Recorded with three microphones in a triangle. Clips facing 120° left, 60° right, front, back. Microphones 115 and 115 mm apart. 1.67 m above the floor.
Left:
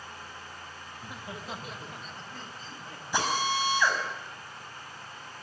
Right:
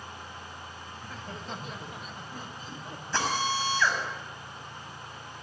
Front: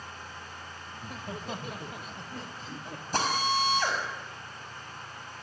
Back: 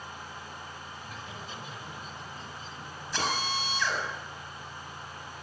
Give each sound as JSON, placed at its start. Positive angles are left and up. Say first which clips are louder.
{"t": 0.9, "sound": "laughter", "louder": "left 1 dB, front 3 dB", "azimuth_deg": 50, "distance_m": 2.0}
{"t": 3.1, "sound": "a drill", "louder": "left 1 dB, front 4 dB", "azimuth_deg": 45, "distance_m": 6.0}